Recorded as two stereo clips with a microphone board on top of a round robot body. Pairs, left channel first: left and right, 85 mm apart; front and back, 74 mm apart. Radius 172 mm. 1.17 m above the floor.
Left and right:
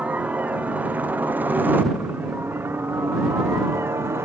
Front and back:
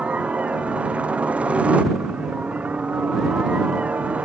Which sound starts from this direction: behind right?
A helicopter, at 0.0 s.